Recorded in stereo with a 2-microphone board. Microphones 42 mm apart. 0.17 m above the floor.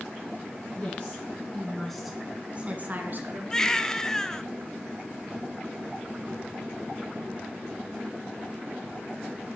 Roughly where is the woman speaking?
Left.